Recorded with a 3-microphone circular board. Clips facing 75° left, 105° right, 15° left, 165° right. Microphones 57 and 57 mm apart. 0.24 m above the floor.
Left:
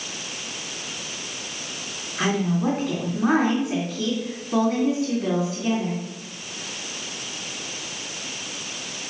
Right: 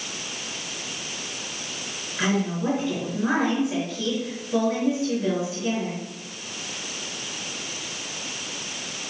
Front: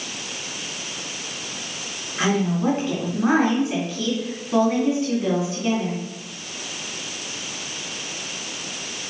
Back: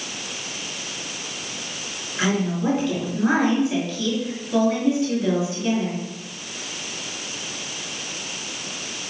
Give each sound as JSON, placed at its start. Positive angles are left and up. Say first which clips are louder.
{"t": 2.2, "sound": "a woman speaking", "louder": "left 2 dB, front 1 dB", "azimuth_deg": 65, "distance_m": 3.0}